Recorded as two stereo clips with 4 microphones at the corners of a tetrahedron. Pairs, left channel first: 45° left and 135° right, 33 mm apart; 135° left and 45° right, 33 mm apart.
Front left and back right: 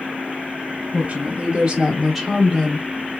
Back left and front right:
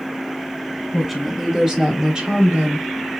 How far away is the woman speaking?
About 1.6 m.